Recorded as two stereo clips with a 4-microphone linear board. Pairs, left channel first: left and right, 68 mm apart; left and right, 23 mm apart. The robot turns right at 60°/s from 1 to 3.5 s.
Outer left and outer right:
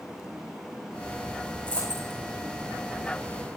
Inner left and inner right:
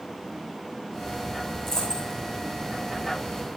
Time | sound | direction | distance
1.7 | a dropped coin | 20° left (ahead or behind) | 7 m